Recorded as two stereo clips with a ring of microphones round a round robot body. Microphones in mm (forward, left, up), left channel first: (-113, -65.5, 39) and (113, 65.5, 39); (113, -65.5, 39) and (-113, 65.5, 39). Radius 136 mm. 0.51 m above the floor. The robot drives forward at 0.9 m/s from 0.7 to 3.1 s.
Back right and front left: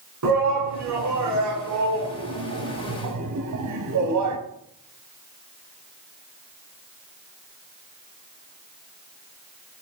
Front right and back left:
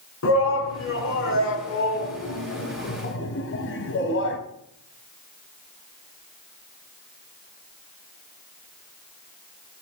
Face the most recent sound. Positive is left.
turn(degrees=15)